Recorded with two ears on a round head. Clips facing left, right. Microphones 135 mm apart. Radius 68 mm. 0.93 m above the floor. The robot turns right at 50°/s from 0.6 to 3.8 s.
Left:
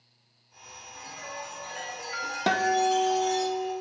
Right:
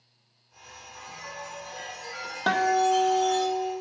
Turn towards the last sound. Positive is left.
turn(degrees=80)